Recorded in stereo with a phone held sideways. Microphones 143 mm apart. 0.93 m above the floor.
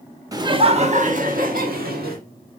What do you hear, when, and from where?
0.3 s laughter: 25° right (ahead or behind), 1.0 m; by 2.2 s 85° right, 1.8 m